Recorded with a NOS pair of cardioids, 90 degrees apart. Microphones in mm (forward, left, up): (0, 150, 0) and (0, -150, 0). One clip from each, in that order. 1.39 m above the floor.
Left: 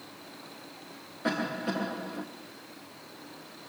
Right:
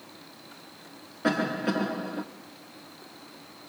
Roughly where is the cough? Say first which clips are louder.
Right 4 dB; ahead right.